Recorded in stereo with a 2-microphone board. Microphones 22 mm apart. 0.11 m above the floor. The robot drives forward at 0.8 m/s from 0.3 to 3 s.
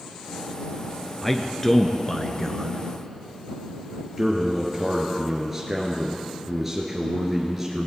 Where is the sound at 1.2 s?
10° left (ahead or behind), 1.4 m; by 2.8 s 15° left (ahead or behind), 1.2 m.